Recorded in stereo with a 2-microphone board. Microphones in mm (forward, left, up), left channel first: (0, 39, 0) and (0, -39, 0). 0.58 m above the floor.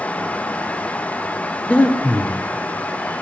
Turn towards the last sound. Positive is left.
turn(degrees=15)  # may be behind; listen again after turning